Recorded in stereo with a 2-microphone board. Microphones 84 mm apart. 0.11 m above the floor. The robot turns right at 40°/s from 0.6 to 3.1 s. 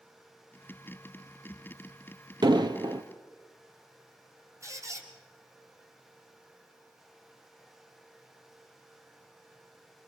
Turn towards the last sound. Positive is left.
turn(degrees=-40)  # may be behind; listen again after turning